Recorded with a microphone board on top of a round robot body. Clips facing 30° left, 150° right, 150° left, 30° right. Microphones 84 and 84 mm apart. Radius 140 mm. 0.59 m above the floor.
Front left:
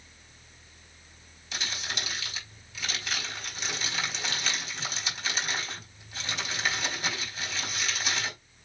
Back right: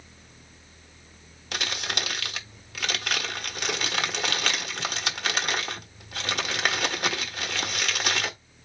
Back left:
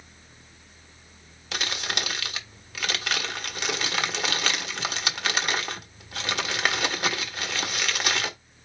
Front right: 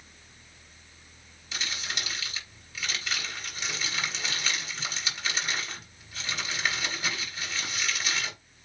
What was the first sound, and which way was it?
Crumpling, straight behind.